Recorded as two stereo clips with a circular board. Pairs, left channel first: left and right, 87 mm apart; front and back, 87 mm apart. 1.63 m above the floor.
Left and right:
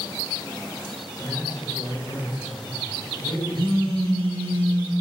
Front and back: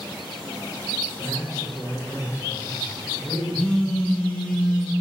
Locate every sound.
1.2 s a man speaking: 55° left, 2.5 m
3.5 s a phone buzzing: 70° right, 1.9 m